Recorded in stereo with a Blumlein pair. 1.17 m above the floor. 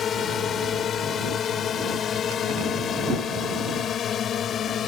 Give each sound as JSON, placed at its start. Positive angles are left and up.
{"t": 0.0, "sound": "a drone", "azimuth_deg": 25}